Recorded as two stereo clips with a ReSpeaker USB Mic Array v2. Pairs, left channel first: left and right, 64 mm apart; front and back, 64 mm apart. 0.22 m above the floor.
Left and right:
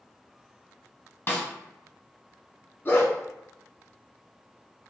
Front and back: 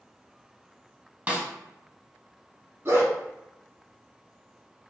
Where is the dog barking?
140° left, 0.9 m.